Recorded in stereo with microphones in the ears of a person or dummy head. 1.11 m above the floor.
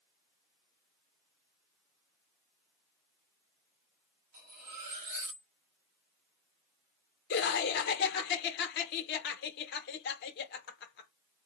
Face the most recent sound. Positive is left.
turn(degrees=60)  # may be behind; listen again after turning